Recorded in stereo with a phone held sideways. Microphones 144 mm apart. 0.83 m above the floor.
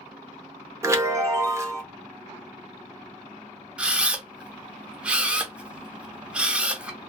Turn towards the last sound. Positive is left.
turn(degrees=-10)  # may be behind; listen again after turning